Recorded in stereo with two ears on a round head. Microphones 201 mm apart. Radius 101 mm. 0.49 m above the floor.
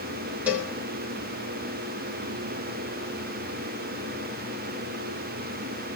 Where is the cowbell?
5° right (ahead or behind), 3.5 m.